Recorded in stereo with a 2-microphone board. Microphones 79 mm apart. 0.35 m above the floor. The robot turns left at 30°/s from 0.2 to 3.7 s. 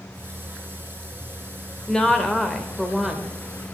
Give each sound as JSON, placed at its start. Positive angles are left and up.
{"t": 1.9, "sound": "a woman speaking", "side_deg": 10, "distance_m": 1.4}